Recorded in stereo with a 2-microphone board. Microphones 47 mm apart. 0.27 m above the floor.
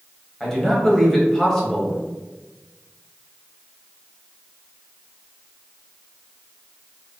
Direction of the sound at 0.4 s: 5° left (ahead or behind).